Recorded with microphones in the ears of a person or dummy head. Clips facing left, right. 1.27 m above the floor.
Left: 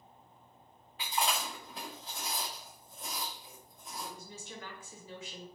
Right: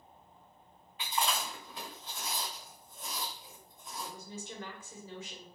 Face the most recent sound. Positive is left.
turn(degrees=-20)  # may be behind; listen again after turning